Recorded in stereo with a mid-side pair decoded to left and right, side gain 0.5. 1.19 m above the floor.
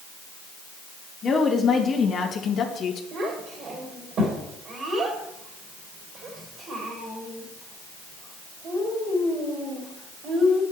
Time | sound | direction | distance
1.2 | a woman speaking | 45° left | 2 m
3.1 | a child speaking | 50° right | 3 m